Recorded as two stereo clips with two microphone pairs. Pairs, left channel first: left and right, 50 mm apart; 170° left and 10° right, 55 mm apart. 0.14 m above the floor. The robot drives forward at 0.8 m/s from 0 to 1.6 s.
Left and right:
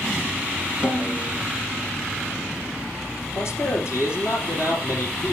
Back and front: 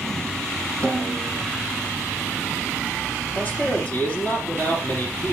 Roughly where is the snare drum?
Left.